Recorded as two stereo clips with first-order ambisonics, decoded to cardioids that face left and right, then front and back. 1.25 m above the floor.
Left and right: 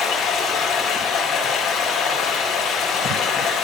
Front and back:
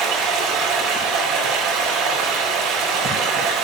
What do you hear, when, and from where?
0.0 s running water: 145° left, 4 m